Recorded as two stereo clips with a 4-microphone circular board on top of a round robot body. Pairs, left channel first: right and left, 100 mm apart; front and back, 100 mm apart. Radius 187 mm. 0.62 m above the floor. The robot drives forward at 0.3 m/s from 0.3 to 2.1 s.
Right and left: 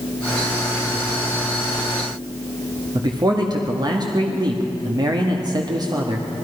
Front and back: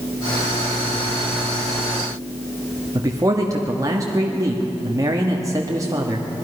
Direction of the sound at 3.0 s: 130° left.